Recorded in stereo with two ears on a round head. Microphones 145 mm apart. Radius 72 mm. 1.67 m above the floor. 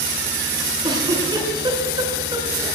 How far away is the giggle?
About 9 m.